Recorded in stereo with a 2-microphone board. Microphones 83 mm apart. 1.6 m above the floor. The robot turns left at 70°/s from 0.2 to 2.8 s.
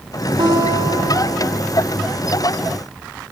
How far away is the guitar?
About 4.5 m.